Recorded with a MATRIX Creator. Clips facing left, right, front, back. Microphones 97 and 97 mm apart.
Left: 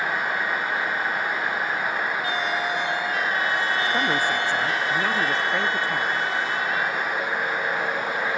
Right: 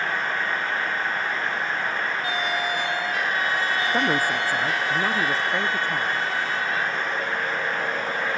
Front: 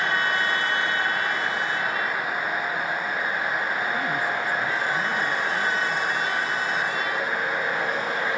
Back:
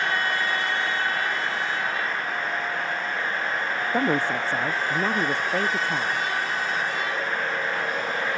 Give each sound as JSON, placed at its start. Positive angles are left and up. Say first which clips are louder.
{"t": 3.9, "sound": "a woman speaking", "louder": "even, back 3 dB", "azimuth_deg": -165}